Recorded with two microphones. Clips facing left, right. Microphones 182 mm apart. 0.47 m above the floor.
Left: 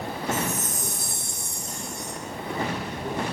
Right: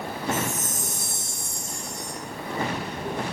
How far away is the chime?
About 1.3 m.